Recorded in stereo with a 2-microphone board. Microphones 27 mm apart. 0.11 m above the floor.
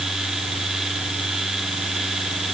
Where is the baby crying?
No baby crying in this recording.